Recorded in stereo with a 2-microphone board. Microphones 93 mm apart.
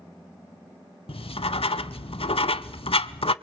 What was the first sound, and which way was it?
Writing, 80° left.